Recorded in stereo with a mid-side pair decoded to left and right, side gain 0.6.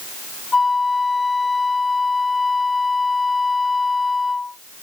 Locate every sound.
0.5 s a flute: 20° left